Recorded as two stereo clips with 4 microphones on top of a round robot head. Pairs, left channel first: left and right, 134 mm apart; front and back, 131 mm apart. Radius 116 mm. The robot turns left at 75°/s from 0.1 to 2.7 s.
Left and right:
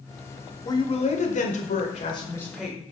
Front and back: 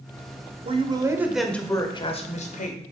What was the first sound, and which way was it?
A woman speaking, 145° left.